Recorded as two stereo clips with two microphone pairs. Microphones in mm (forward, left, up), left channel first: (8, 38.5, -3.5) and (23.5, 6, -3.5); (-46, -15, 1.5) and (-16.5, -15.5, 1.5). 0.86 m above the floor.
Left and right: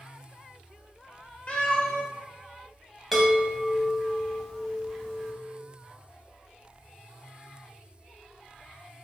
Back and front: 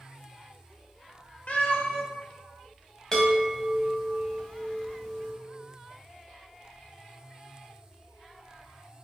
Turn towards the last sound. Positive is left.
turn(degrees=-160)